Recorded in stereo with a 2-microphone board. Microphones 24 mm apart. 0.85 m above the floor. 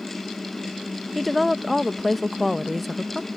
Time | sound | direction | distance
1.1 | a woman speaking | centre (ahead or behind) | ?